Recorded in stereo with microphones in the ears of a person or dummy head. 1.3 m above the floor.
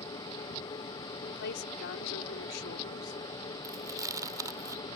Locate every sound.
0.0 s a machine running: 20° left (ahead or behind)
1.2 s a woman speaking: 60° left (ahead or behind)
3.6 s chewing: 20° right (ahead or behind)